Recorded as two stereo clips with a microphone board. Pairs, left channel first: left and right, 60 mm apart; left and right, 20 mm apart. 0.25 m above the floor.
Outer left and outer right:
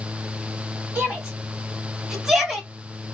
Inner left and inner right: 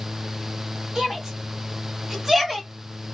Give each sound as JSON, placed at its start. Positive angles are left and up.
{"t": 0.9, "sound": "a shout", "side_deg": -25, "distance_m": 1.8}